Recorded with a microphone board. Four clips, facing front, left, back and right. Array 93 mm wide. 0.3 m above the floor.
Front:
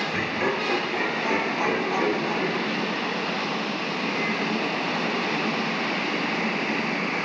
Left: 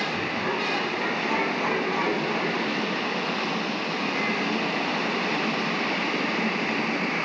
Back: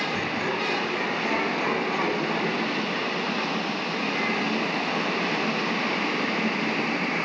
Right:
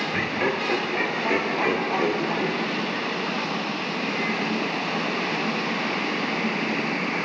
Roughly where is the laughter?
Ahead right.